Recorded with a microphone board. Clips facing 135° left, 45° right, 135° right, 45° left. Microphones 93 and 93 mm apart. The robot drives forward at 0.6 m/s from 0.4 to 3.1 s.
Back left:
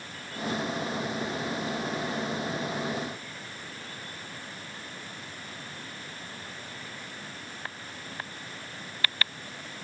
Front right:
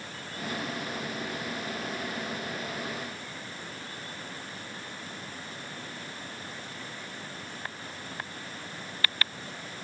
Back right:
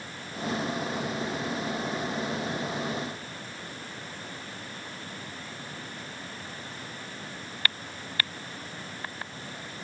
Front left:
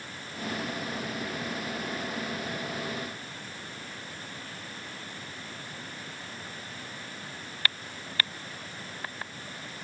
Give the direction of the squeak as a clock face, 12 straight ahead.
I don't hear a squeak.